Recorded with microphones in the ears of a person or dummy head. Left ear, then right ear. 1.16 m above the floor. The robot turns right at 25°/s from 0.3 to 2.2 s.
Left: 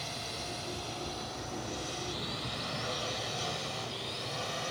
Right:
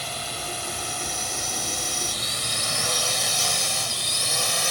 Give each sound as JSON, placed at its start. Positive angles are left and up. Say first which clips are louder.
{"t": 0.0, "sound": "a drone", "louder": "right 8 dB", "side_deg": -35}